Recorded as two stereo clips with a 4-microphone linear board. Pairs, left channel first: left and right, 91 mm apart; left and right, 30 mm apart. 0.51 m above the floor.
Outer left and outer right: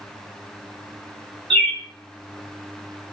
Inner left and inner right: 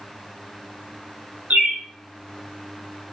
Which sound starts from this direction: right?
A bird, at 1.5 s.